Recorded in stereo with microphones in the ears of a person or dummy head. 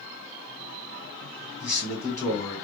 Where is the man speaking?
10° left (ahead or behind), 2 m.